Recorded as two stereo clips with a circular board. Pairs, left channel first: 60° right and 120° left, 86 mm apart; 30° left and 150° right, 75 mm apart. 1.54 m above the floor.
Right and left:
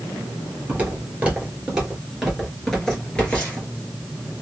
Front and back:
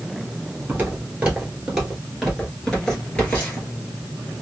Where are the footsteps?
170° left, 1.7 m; by 3.7 s 5° right, 1.6 m.